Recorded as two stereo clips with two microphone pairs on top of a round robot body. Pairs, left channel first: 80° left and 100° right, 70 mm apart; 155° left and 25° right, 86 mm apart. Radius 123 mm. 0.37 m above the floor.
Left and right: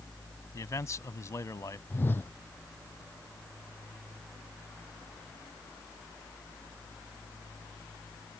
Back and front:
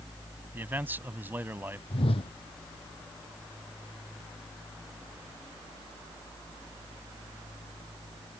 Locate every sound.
0.5 s a man speaking: 40° left
1.9 s a whoosh: 140° left